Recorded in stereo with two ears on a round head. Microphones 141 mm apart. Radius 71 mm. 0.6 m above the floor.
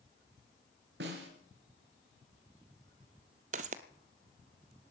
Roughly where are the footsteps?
Right.